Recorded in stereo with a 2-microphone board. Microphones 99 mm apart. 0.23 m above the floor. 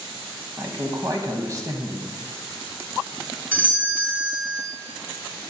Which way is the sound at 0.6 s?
40° right (ahead or behind).